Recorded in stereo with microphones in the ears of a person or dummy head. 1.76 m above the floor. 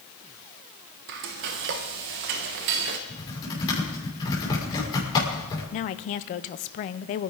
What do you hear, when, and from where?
1.1 s frying: 50° right (ahead or behind), 1.3 m
3.1 s typing on a keyboard: 20° left (ahead or behind), 6.5 m
5.7 s a woman speaking: 40° left (ahead or behind), 0.7 m